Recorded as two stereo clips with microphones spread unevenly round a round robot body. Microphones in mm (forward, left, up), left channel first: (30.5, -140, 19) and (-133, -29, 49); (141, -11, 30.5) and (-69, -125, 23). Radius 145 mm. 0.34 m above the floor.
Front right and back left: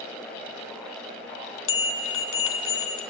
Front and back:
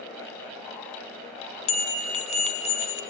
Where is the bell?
35° right, 2.5 m.